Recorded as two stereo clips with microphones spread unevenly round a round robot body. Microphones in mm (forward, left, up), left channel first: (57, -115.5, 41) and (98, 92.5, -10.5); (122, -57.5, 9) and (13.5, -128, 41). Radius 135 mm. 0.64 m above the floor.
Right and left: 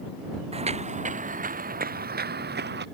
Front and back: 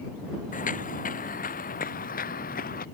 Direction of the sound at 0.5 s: 15° left.